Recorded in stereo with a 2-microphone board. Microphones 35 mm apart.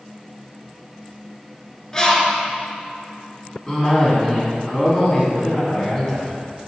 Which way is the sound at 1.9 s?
20° left (ahead or behind).